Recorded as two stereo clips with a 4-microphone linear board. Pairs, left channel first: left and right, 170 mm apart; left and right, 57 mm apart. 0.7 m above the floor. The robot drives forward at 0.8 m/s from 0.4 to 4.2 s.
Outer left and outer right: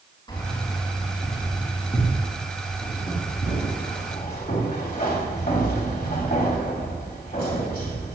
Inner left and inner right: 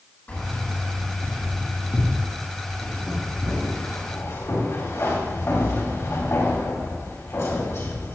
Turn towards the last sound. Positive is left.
turn(degrees=60)  # may be behind; listen again after turning